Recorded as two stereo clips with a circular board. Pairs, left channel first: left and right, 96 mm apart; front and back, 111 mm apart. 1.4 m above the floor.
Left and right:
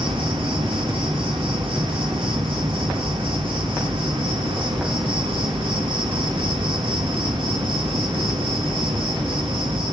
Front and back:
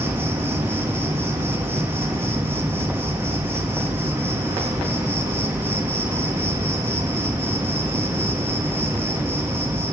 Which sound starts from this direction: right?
An insect, at 0.0 s.